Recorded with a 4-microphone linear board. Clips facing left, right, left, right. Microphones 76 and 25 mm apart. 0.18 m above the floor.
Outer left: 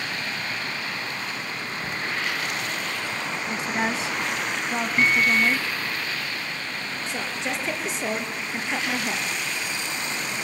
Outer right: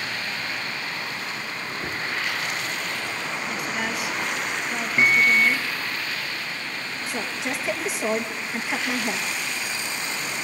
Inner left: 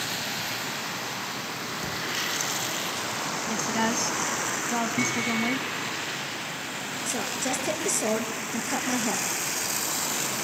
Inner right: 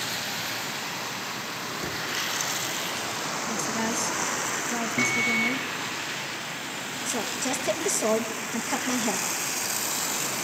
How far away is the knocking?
About 2.5 m.